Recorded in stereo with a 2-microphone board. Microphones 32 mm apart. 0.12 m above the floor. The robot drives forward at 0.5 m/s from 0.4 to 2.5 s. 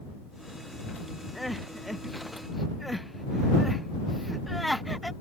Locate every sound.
1.4 s crying: centre (ahead or behind)